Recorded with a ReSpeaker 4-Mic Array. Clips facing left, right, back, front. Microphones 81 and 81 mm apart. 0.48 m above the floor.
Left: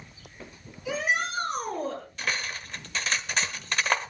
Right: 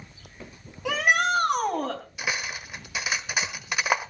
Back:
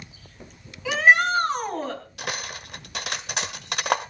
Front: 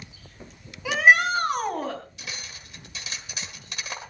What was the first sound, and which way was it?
A shout, 75° right.